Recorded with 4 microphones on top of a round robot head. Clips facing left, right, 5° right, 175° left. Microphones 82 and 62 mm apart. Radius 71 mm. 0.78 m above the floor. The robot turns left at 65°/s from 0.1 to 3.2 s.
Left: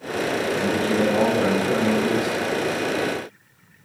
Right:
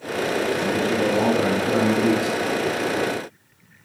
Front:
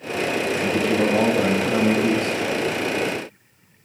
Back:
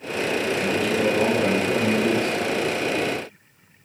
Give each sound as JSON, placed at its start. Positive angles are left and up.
{"t": 0.6, "sound": "a man speaking", "azimuth_deg": 65, "distance_m": 5.5}